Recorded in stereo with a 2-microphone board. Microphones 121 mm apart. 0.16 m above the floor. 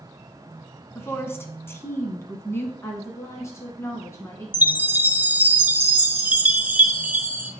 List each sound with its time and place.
0.9 s a woman speaking: 20° left (ahead or behind), 1.0 m
2.8 s a woman speaking: 20° left (ahead or behind), 1.3 m
4.5 s a chime: 15° right (ahead or behind), 0.7 m